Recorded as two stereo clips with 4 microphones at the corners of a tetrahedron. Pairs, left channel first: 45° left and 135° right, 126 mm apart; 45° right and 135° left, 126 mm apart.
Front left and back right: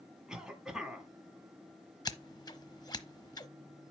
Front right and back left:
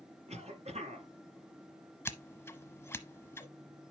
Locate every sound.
0.3 s a cough: 140° left, 2.5 m
2.0 s scissors: 10° left, 1.0 m